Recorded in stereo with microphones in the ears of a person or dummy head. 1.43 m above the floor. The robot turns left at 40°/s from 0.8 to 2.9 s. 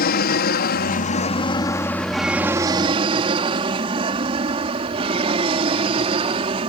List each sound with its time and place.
0.0 s an aircraft: 45° left (ahead or behind); by 6.7 s 30° right (ahead or behind)